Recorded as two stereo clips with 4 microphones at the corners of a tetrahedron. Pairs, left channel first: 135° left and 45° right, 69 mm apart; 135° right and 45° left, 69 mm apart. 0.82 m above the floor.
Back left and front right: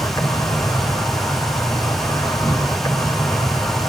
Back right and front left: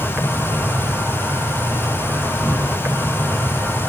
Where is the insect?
105° left, 4 m.